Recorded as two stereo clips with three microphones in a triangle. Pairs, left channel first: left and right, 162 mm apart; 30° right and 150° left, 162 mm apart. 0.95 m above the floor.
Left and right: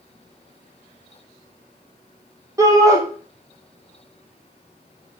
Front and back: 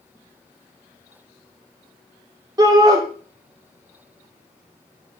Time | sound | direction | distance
2.6 | a shout | 150° right | 0.5 m